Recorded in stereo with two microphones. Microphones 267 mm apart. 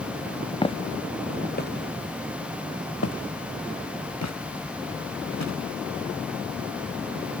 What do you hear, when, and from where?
0.6 s footsteps: 20° left (ahead or behind); by 5.5 s 85° left